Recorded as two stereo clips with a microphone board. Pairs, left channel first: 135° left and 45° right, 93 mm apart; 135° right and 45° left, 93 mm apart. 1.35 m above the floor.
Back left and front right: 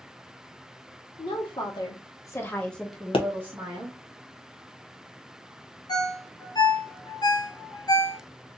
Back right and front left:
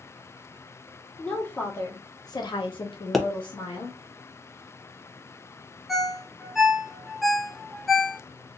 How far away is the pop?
About 0.7 m.